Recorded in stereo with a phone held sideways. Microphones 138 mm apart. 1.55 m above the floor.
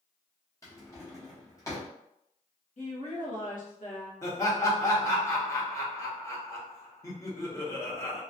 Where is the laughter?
20° left (ahead or behind), 0.8 m.